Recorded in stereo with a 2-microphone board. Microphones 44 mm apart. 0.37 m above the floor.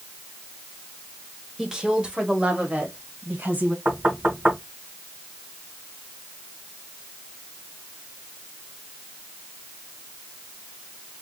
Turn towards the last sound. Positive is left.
turn(degrees=-45)  # may be behind; listen again after turning